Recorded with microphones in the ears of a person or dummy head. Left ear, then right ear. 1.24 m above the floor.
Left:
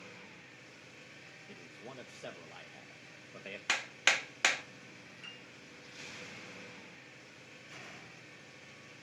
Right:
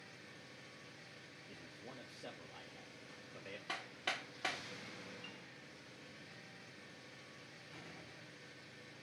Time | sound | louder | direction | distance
1.5 | a man speaking | left 4 dB | 35° left (ahead or behind) | 0.7 m
3.7 | hammering | left 12 dB | 55° left (ahead or behind) | 0.6 m
5.2 | a piano | left 4 dB | 70° left (ahead or behind) | 3.5 m
7.7 | a door slam | left 6 dB | 60° left (ahead or behind) | 5 m